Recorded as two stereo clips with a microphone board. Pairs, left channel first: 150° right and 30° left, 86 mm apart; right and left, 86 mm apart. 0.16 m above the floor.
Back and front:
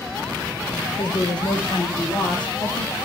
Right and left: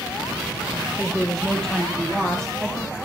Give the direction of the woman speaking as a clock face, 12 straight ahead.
6 o'clock.